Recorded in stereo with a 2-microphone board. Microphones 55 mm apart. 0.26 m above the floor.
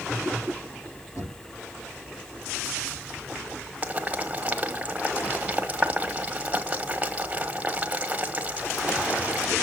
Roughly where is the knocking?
Left.